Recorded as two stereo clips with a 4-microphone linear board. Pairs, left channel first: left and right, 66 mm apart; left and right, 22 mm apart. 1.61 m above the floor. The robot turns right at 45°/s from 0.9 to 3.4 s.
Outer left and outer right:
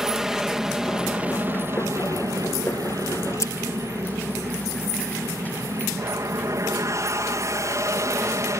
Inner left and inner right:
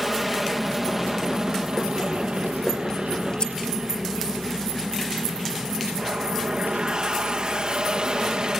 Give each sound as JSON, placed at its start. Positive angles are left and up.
{"t": 0.0, "sound": "an aircraft", "azimuth_deg": -175}
{"t": 3.4, "sound": "scissors", "side_deg": 50}